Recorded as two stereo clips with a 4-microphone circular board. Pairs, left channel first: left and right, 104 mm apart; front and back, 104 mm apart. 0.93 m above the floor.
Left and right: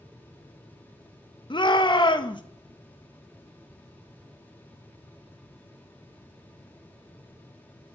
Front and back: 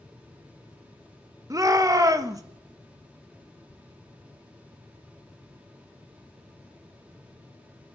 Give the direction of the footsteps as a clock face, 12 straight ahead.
I don't hear footsteps.